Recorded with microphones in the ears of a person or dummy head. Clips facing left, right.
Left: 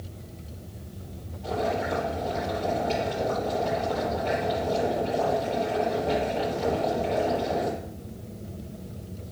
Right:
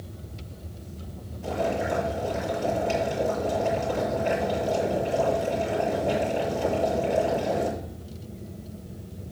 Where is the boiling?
75° right (ahead or behind), 7.5 m.